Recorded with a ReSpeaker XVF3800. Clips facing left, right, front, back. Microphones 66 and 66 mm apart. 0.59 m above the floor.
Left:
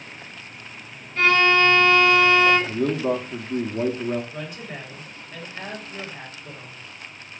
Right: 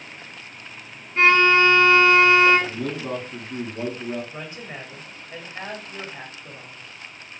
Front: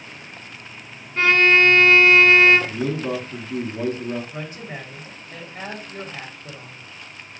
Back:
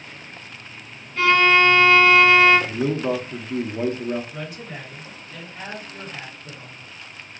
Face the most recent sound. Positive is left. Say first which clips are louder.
# left 1 dB, front 1 dB
turn(degrees=-40)